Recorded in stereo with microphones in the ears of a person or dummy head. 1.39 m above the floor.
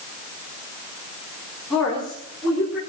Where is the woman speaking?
5° left (ahead or behind), 5 m; by 2.8 s 5° right (ahead or behind), 6 m.